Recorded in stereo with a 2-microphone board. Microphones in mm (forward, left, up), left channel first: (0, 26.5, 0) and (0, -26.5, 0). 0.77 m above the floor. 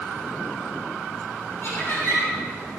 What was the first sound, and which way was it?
Laughter, 50° left (ahead or behind).